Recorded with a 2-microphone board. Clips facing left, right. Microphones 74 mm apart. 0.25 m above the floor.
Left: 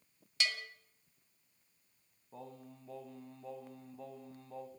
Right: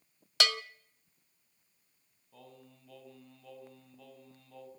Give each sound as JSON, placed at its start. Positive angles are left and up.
{"t": 0.4, "sound": "a bell", "side_deg": -85, "distance_m": 0.5}
{"t": 2.3, "sound": "singing", "side_deg": 30, "distance_m": 2.0}